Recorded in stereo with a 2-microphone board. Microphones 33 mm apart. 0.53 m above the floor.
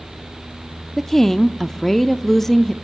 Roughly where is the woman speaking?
Centre.